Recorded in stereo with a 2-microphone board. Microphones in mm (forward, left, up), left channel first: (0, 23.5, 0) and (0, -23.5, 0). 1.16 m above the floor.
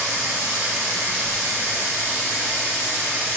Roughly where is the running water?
Right.